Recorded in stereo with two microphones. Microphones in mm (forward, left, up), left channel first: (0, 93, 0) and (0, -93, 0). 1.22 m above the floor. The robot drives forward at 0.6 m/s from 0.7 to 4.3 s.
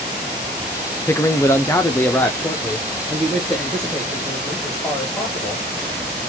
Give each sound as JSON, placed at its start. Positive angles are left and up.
{"t": 1.1, "sound": "a man speaking", "side_deg": 15, "distance_m": 0.6}